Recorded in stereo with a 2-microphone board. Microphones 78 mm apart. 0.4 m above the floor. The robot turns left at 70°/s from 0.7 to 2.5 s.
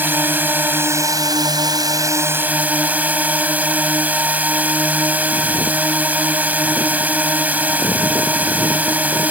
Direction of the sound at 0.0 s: 30° right.